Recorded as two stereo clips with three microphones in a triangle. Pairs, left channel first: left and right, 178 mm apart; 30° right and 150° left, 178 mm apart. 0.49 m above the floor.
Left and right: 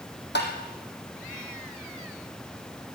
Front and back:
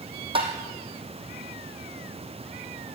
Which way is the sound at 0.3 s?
90° left.